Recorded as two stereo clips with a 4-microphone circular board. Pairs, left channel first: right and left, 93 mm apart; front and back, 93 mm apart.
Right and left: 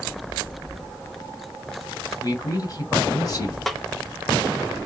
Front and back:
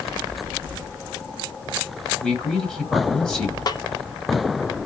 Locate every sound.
2.2 s a man speaking: 80° right, 1.8 m
3.7 s a snare drum: 5° right, 0.6 m